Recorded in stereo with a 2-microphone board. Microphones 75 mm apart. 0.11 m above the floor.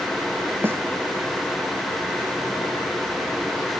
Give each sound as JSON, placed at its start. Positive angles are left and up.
{"t": 0.6, "sound": "a snare drum", "side_deg": -30}